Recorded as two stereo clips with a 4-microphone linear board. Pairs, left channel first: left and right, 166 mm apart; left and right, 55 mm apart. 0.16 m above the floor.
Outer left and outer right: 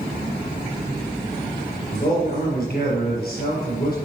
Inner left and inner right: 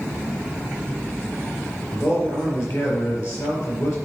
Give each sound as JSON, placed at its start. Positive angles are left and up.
{"t": 1.9, "sound": "a man speaking", "side_deg": 65, "distance_m": 4.0}